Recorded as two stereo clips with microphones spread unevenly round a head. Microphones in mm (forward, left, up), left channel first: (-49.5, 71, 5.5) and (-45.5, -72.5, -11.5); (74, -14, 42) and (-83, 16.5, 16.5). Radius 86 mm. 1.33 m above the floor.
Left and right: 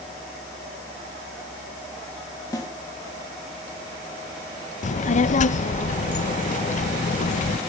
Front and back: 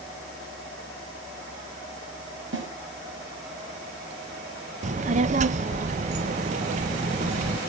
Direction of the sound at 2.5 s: 155° left.